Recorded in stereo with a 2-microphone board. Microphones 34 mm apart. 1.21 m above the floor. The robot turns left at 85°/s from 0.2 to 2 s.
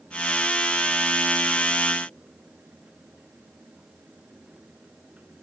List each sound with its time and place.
Only background noise.